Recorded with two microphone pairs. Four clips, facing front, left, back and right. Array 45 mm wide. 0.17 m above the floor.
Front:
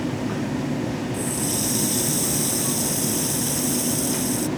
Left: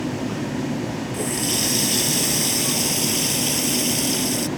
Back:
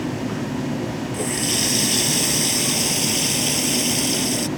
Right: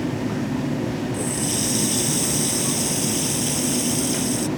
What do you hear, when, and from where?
1.1 s a running tap: 155° left